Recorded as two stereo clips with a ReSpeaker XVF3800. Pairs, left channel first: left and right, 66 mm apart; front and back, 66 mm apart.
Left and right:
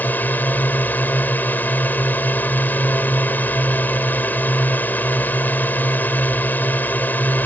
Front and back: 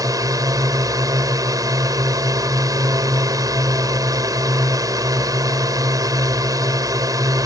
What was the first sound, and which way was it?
A drone, 155° left.